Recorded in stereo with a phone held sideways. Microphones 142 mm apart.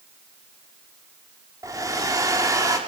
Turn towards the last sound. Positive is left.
turn(degrees=-25)  # may be behind; listen again after turning